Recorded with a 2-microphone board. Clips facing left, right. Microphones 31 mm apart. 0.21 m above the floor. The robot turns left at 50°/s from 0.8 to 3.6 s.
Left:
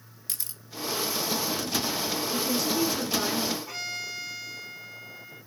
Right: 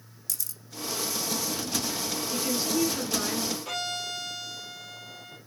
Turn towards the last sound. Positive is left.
turn(degrees=-70)  # may be behind; listen again after turning